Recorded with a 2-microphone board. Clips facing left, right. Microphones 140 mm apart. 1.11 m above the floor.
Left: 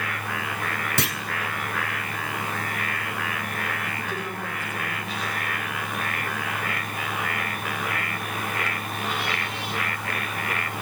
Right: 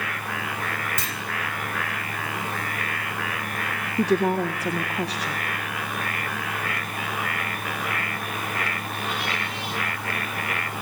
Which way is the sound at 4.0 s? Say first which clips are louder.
Right 11 dB; 80° right.